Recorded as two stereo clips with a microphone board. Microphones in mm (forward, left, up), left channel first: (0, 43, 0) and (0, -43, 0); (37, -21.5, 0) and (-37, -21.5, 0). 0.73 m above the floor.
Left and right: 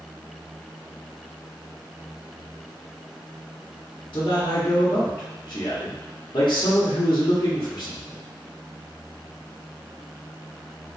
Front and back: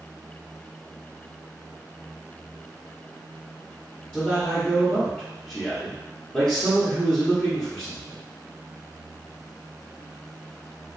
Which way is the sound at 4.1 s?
75° left.